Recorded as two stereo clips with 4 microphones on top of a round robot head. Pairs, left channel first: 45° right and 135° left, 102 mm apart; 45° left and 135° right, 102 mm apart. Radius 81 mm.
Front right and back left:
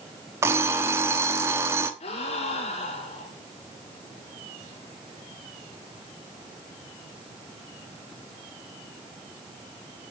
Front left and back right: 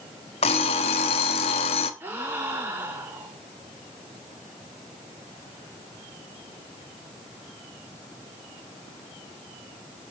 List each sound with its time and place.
0.4 s an alarm clock: 70° left, 1.4 m
2.0 s a gasp: 65° right, 4 m